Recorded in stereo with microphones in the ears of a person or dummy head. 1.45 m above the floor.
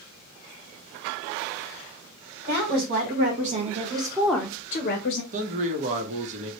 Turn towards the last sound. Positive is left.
turn(degrees=-40)  # may be behind; listen again after turning